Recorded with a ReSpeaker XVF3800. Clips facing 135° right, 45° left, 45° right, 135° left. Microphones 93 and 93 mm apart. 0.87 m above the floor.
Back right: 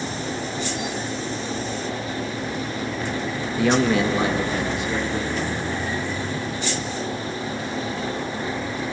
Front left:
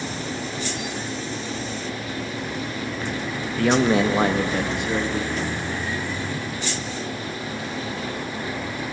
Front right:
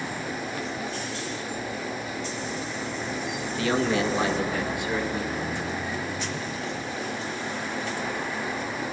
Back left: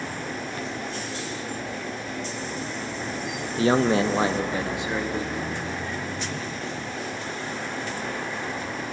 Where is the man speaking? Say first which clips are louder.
Front left 1 dB, back left 4 dB; 155° left, 0.5 m; by 5.4 s 65° left, 2.0 m.